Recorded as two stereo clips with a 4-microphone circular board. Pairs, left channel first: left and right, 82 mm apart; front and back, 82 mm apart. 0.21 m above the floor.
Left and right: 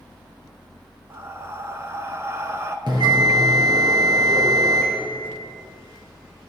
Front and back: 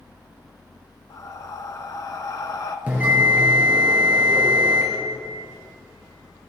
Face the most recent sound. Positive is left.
turn(degrees=-115)